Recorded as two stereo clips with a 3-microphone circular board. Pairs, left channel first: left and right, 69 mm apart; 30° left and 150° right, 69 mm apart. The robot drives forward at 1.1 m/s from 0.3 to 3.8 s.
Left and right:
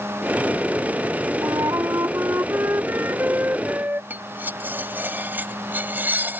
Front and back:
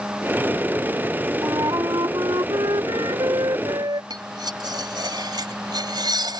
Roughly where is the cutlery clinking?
Behind right.